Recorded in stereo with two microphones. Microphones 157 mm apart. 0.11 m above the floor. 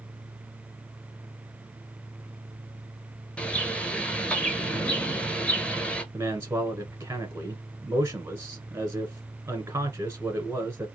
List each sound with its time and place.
3.4 s a bird: 5° left (ahead or behind), 0.7 m
6.1 s a man speaking: 15° right (ahead or behind), 1.1 m